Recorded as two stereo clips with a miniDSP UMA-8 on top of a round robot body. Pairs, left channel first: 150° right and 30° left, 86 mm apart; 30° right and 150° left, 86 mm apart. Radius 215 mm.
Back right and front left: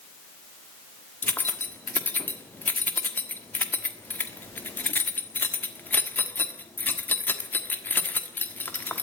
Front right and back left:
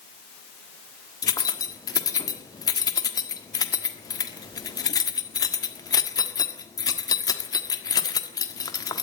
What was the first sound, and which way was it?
Keys jangling, 80° right.